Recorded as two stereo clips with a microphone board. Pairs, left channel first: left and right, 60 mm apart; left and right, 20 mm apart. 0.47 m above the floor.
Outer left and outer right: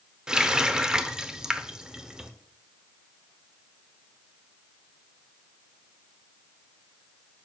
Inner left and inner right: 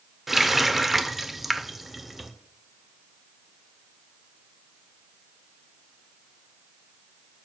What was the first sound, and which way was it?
A running tap, 15° right (ahead or behind).